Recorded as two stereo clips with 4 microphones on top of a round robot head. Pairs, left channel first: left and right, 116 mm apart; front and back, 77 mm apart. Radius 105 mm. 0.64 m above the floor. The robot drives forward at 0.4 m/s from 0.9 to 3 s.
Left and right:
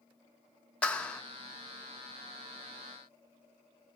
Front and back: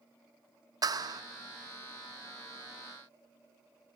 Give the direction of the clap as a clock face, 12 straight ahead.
6 o'clock.